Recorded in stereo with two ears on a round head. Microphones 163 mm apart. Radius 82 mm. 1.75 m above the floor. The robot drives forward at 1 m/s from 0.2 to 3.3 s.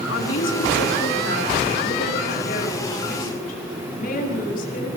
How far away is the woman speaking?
About 4.5 m.